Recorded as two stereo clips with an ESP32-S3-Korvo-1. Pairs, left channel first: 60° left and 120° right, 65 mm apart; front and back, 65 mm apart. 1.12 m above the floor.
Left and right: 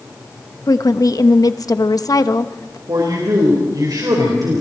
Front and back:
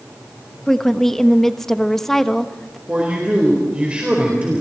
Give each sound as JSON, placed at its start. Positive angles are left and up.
{"t": 0.7, "sound": "a woman speaking", "azimuth_deg": 85, "distance_m": 1.0}
{"t": 2.9, "sound": "a man speaking", "azimuth_deg": -110, "distance_m": 4.5}